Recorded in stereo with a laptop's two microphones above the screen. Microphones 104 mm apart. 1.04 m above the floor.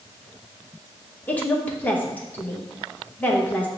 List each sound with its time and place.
1.3 s a woman speaking: 15° left (ahead or behind), 0.9 m